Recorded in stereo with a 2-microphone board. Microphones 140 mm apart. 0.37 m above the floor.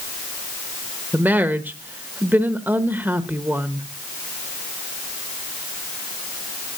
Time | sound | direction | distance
1.1 | a woman speaking | 15° right (ahead or behind) | 0.9 m